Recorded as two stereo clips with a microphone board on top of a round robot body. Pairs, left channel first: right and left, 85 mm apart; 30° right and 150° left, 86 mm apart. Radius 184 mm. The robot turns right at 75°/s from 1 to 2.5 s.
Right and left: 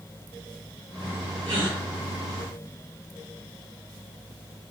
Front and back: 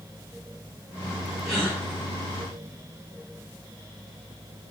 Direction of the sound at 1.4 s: 55° left.